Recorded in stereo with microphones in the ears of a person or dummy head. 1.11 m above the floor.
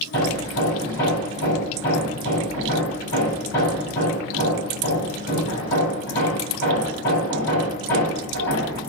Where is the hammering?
55° left (ahead or behind), 5 m.